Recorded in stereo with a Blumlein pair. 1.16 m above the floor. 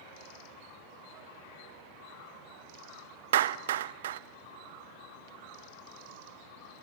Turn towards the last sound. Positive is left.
turn(degrees=-60)